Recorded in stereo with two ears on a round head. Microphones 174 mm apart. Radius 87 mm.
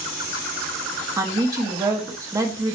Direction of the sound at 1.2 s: 15° right (ahead or behind).